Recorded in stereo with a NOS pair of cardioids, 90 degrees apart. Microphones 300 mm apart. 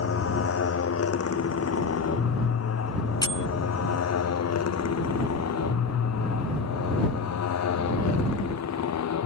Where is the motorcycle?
50° left; by 9.3 s 65° left.